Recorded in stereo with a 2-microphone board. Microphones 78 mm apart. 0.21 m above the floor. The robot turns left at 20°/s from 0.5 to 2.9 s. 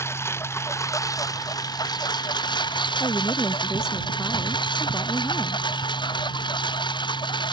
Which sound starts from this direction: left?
A woman speaking, at 3.0 s.